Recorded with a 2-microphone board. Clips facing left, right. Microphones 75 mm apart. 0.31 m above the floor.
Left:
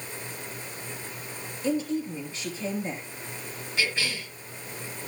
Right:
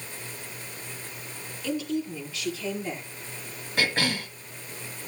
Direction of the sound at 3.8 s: 55° right (ahead or behind).